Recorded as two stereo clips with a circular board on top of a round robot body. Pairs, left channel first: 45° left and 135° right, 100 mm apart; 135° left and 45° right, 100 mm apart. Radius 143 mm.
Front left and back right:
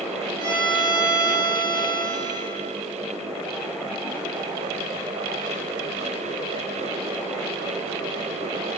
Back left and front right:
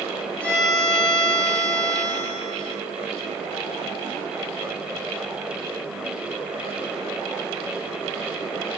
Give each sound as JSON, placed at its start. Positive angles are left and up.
{"t": 0.4, "sound": "a violin", "azimuth_deg": 60, "distance_m": 2.0}